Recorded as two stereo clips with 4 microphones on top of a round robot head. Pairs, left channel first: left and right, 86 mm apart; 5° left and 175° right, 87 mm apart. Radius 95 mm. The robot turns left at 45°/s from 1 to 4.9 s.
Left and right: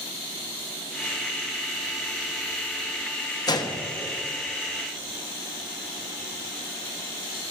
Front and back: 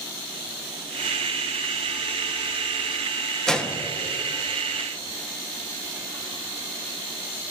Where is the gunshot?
85° left, 1.5 m; by 3.8 s 70° left, 1.5 m.